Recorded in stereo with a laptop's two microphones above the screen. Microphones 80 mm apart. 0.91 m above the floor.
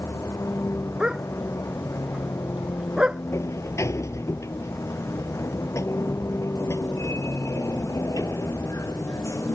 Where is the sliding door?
40° left (ahead or behind).